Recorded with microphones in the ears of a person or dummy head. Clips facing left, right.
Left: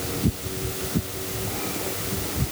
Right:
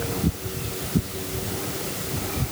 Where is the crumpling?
No crumpling in this recording.